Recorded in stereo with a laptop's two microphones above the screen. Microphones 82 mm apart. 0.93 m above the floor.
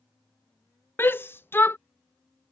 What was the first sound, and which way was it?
A shout, 25° left (ahead or behind).